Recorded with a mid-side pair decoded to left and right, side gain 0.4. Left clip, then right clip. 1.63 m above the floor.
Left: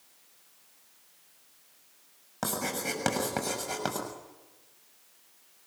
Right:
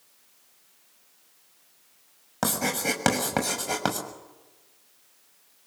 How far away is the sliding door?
I don't hear a sliding door.